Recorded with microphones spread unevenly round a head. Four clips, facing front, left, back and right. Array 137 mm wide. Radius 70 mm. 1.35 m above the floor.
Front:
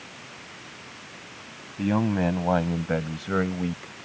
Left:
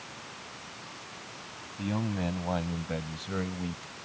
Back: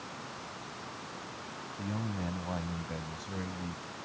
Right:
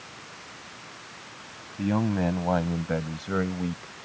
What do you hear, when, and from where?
1.8 s a man speaking: 30° right; by 3.9 s 25° right